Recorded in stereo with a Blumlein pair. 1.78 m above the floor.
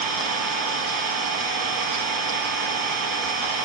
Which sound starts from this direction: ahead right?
An engine running, at 0.0 s.